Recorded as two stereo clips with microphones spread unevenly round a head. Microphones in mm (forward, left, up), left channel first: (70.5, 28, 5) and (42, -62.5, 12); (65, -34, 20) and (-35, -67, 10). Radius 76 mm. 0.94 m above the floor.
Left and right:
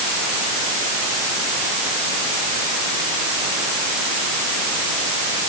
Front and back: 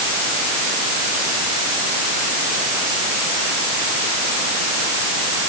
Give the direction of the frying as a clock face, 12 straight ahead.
I don't hear frying.